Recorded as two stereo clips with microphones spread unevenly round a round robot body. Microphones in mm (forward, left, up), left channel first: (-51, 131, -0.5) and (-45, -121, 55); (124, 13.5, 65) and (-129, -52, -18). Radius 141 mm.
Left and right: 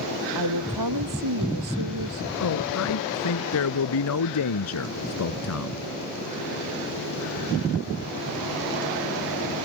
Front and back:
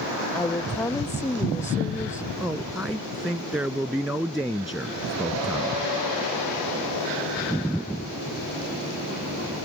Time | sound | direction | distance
0.3 | a woman speaking | 65° right | ?
2.4 | a man speaking | 110° left | ?